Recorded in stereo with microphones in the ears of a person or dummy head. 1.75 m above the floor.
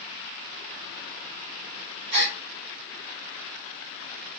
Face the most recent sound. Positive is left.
turn(degrees=-30)  # may be behind; listen again after turning